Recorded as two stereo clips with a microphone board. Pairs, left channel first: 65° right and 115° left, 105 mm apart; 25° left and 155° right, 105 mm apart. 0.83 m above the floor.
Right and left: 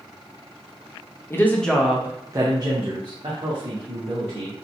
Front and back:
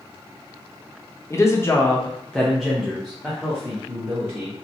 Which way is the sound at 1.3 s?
20° right.